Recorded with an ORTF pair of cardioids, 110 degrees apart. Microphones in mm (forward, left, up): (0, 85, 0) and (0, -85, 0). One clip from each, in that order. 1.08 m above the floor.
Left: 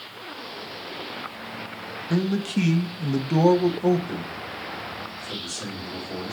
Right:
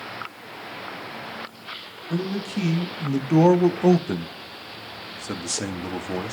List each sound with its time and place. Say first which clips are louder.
2.1 s a man speaking: left 2 dB; 35° left, 1.0 m; by 6.3 s 80° right, 1.7 m